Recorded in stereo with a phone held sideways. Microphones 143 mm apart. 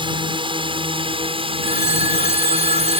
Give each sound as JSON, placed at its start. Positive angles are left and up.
{"t": 0.0, "sound": "a drone", "side_deg": -35}
{"t": 1.6, "sound": "a phone ringing", "side_deg": 80}